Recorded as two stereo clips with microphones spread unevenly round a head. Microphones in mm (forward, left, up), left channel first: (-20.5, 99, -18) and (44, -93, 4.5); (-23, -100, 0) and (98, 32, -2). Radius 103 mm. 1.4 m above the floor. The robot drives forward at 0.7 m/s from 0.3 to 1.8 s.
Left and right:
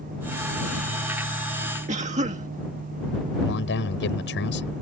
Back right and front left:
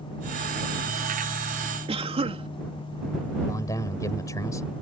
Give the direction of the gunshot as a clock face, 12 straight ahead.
No gunshot in this recording.